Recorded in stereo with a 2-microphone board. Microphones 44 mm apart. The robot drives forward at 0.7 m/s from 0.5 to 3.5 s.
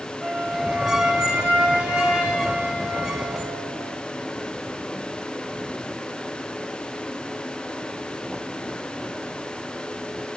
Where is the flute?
25° right (ahead or behind), 5.5 m; by 4.0 s 35° right (ahead or behind), 3.5 m.